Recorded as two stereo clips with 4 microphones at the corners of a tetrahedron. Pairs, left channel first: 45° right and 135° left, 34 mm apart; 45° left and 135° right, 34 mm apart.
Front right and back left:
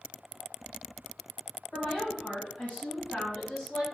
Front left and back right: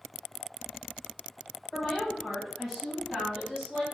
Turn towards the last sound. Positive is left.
turn(degrees=-65)